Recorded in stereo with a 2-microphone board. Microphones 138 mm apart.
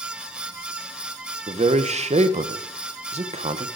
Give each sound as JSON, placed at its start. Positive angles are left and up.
{"t": 1.5, "sound": "a man speaking", "side_deg": -50, "distance_m": 1.0}